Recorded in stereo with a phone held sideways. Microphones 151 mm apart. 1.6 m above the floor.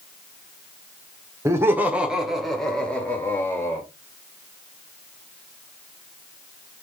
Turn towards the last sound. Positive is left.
turn(degrees=20)  # may be behind; listen again after turning